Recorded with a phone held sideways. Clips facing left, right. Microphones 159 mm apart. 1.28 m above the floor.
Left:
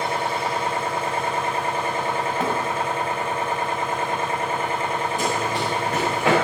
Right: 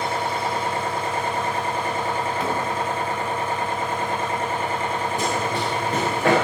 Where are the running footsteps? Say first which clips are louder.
Even; 55° right (ahead or behind), 9.5 m; by 6.3 s 50° right (ahead or behind), 9 m.